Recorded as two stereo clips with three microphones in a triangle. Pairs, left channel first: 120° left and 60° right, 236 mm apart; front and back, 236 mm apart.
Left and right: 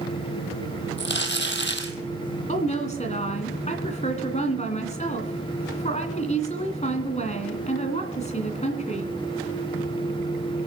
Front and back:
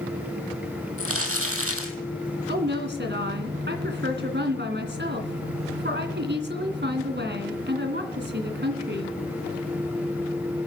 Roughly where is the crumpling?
Behind.